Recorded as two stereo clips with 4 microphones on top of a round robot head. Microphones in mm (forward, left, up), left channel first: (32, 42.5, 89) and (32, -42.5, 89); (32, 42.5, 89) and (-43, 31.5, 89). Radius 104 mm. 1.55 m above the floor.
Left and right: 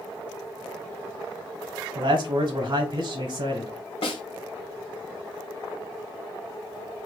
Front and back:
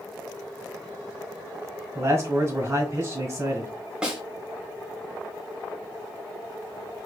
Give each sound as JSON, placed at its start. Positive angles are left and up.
{"t": 1.9, "sound": "a man speaking", "azimuth_deg": -120, "distance_m": 0.8}
{"t": 4.0, "sound": "a snare drum", "azimuth_deg": 110, "distance_m": 1.0}